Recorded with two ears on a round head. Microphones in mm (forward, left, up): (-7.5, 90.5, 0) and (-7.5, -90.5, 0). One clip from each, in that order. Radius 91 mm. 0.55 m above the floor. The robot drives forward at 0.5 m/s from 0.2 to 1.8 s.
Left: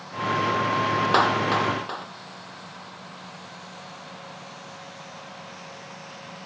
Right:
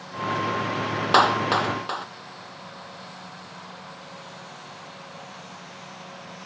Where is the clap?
25° right (ahead or behind).